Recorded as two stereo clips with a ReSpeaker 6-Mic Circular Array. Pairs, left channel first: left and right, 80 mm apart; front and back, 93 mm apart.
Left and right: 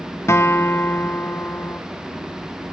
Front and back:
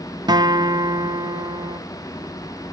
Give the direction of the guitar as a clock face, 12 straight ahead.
7 o'clock.